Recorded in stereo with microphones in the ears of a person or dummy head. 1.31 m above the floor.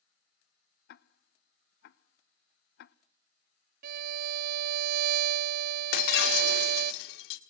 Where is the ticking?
55° left (ahead or behind), 0.7 m.